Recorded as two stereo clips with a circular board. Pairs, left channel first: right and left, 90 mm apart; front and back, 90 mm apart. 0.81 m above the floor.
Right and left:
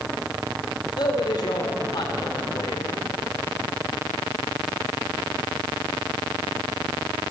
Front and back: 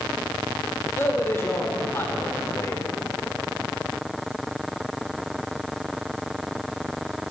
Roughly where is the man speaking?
Ahead right.